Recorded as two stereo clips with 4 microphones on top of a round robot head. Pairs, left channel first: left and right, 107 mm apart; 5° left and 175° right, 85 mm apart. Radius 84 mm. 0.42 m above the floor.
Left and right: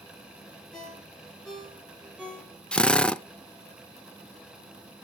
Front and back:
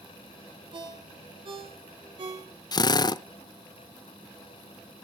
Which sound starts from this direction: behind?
A ringtone, at 0.7 s.